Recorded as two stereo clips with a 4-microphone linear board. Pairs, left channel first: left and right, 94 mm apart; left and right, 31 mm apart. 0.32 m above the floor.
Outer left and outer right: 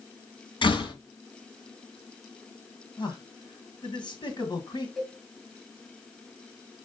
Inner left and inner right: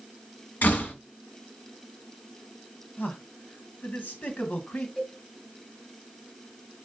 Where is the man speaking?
60° left (ahead or behind), 2 m.